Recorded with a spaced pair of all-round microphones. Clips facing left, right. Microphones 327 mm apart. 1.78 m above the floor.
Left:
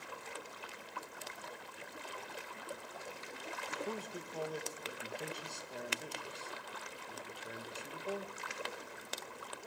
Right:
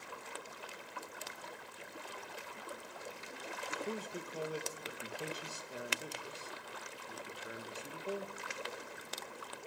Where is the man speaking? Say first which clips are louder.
Right 1 dB; 10° right (ahead or behind), 1.8 m.